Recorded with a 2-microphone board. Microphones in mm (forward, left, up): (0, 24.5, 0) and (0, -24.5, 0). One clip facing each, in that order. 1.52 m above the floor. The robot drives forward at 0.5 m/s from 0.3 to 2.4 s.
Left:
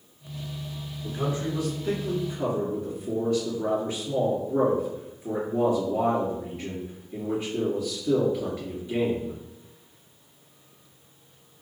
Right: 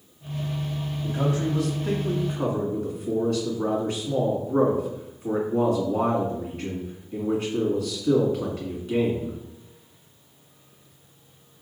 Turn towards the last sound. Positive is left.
turn(degrees=-60)  # may be behind; listen again after turning